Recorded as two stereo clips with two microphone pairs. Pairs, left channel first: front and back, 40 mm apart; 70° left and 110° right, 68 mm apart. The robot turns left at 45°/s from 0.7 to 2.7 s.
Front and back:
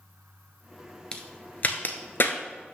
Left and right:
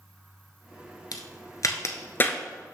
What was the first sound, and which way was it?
A crack, 65° left.